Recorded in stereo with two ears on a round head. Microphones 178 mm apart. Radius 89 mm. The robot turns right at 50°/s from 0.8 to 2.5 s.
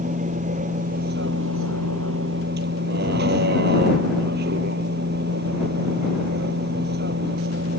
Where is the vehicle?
140° right; by 7.8 s 55° right.